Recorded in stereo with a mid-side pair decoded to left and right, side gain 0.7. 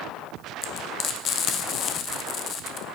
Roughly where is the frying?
Ahead left.